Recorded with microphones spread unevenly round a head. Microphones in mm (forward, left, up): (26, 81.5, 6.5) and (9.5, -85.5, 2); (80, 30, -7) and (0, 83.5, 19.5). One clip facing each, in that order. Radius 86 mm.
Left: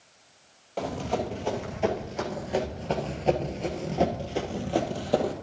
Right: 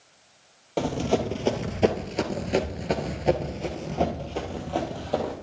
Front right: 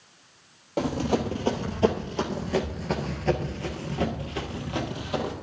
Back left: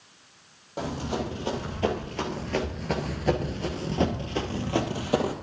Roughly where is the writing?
No writing in this recording.